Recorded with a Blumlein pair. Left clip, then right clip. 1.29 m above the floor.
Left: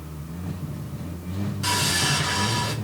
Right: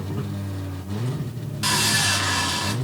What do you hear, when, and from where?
1.6 s sawing: 45° right, 1.4 m